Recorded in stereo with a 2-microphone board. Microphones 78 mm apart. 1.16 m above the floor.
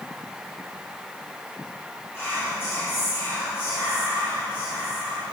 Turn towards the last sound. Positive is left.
turn(degrees=30)  # may be behind; listen again after turning